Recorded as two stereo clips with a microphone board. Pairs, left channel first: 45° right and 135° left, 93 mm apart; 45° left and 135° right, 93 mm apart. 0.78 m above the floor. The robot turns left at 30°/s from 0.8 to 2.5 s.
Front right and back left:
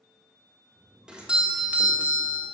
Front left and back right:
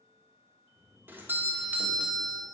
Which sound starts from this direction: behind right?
A doorbell, at 1.1 s.